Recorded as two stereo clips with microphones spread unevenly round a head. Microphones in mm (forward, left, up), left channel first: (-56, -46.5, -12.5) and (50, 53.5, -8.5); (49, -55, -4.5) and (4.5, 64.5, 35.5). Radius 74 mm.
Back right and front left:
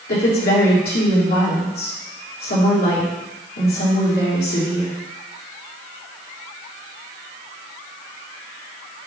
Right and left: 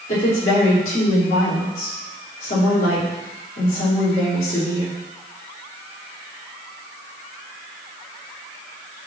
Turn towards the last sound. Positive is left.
turn(degrees=-110)